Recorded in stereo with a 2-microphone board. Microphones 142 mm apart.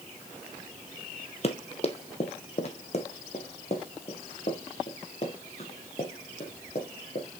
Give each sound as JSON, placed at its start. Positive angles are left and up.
{"t": 1.4, "sound": "running footsteps", "side_deg": 40, "distance_m": 1.2}